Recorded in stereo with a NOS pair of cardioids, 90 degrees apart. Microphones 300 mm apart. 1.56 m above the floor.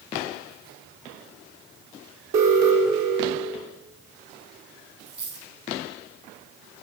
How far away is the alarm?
About 1.7 m.